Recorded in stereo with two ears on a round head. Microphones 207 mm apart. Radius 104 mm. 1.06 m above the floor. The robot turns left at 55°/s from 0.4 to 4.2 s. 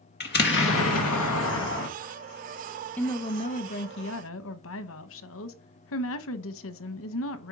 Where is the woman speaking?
170° left, 1.0 m; by 7.5 s 105° left, 1.0 m.